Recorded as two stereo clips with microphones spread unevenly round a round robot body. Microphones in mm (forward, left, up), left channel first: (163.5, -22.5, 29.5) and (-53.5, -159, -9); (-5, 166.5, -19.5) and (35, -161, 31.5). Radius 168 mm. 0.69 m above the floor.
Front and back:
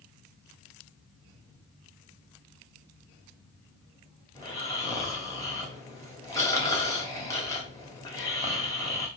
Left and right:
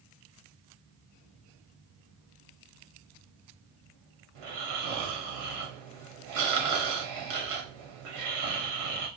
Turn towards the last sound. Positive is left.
turn(degrees=-50)